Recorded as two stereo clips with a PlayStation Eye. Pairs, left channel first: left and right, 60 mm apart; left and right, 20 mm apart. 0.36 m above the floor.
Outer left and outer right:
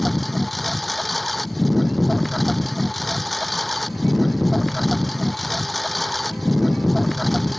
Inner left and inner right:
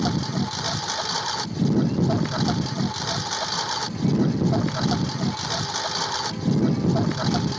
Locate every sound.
0.0 s a lawn mower: centre (ahead or behind)